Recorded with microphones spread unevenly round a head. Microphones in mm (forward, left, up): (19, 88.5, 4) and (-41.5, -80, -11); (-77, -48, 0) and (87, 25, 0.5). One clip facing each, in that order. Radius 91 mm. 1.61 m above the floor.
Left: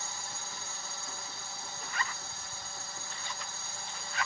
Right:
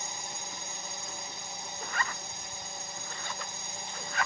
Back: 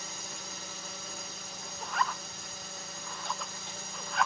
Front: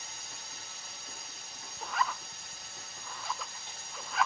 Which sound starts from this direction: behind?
A drone, at 0.0 s.